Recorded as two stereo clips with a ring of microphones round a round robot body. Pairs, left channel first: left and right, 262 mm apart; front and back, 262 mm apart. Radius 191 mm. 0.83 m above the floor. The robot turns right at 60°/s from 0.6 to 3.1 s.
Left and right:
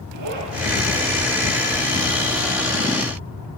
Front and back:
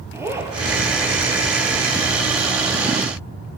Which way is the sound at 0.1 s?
100° right.